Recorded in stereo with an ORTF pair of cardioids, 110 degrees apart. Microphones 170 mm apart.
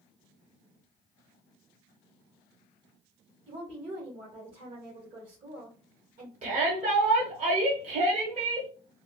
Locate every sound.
3.5 s a woman speaking: 55° right, 1.9 m
6.4 s a shout: 45° right, 1.4 m